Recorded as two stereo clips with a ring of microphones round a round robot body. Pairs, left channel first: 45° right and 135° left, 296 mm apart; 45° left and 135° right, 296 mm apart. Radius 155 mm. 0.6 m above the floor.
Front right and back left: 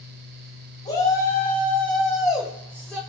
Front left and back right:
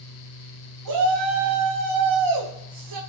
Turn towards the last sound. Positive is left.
turn(degrees=-135)